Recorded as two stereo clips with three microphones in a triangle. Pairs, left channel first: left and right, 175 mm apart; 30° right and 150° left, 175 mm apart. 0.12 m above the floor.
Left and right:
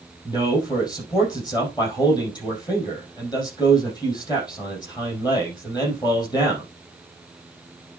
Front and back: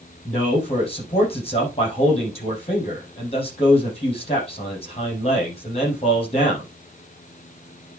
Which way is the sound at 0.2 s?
25° left.